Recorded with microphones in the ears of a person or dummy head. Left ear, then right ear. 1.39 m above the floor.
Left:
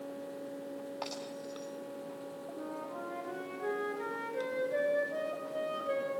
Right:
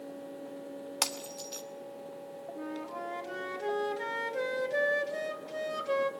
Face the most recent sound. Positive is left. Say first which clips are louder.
# right 3 dB
turn(degrees=-40)  # may be behind; listen again after turning